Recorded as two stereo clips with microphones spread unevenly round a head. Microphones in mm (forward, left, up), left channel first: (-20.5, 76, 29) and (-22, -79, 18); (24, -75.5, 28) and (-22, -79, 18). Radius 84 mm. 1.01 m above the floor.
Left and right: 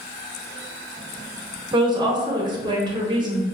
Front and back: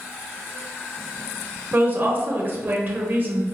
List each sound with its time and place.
1.7 s a woman speaking: 145° right, 0.8 m